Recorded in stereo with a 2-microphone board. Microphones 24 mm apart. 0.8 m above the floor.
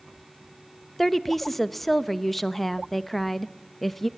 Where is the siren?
No siren in this recording.